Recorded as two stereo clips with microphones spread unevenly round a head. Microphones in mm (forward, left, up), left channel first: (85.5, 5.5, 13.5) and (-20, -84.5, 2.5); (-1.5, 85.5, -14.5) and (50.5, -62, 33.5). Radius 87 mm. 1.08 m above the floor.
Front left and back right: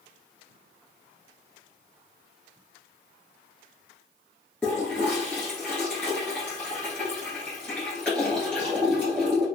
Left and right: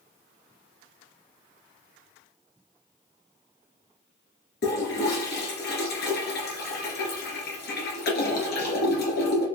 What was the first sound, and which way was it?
A toilet flushing, 125° left.